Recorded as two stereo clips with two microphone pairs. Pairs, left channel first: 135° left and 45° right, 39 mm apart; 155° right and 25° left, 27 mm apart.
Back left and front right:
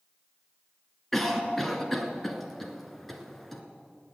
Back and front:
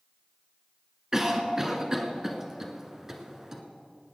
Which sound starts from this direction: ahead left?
A cough, at 1.1 s.